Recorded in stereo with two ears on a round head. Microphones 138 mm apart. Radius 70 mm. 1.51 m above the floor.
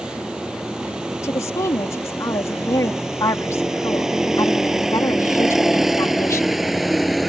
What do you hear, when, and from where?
0.0 s a vehicle: 5° right (ahead or behind); by 7.3 s centre (ahead or behind)
1.2 s a woman speaking: 20° left (ahead or behind)